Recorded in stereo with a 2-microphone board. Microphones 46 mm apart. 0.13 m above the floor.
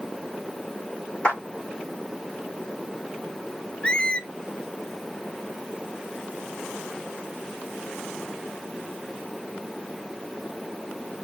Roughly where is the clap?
Left.